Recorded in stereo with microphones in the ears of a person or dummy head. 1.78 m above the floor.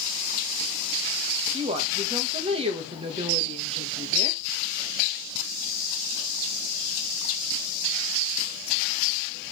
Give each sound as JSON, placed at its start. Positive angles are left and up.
{"t": 1.5, "sound": "a woman speaking", "side_deg": -30, "distance_m": 1.8}